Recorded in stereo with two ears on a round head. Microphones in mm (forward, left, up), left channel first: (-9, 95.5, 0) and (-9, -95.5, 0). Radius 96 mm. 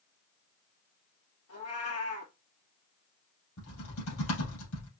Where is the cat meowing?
80° left, 3 m.